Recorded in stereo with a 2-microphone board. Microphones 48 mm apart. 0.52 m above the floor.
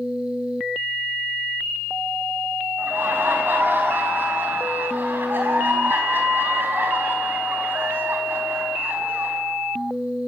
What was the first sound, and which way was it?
Laughter, 40° right (ahead or behind).